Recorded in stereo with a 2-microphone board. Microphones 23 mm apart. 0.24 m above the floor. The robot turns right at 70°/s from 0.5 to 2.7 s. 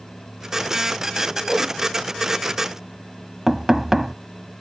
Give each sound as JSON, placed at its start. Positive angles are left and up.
{"t": 1.5, "sound": "a whoosh", "side_deg": -15}
{"t": 3.5, "sound": "knocking", "side_deg": -15}